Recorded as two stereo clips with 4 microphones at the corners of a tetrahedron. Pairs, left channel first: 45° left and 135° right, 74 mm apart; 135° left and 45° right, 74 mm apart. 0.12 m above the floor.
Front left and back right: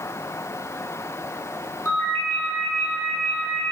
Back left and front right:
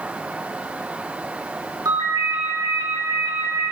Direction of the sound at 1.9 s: 15° right.